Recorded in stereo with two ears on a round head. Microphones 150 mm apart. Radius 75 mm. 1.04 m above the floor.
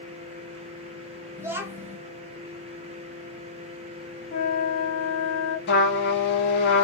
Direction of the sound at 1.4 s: 15° right (ahead or behind).